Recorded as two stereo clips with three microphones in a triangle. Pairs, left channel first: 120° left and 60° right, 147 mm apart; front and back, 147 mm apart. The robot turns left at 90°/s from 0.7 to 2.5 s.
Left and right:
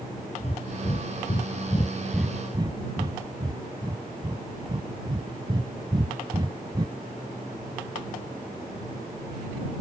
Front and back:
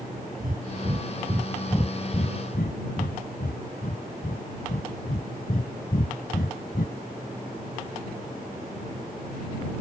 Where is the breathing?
160° left; by 7.0 s straight ahead.